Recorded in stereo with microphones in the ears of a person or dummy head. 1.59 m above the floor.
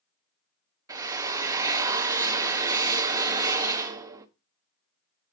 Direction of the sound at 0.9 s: 20° right (ahead or behind).